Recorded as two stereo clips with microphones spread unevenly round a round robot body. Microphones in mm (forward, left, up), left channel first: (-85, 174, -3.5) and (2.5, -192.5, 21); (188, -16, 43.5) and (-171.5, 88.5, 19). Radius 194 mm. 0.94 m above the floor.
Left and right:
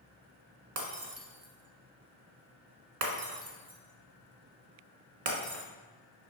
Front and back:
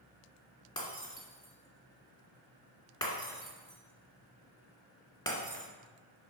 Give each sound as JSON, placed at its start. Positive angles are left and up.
{"t": 0.8, "sound": "breaking glass", "azimuth_deg": -95, "distance_m": 2.0}